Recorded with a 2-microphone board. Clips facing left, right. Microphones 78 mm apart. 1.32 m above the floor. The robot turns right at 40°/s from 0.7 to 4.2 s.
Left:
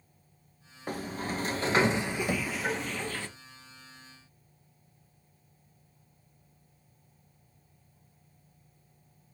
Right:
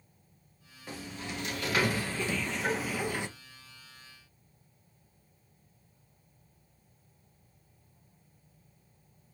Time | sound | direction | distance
0.9 | a sliding door | 110° left | 0.6 m
2.3 | knocking | 50° left (ahead or behind) | 0.8 m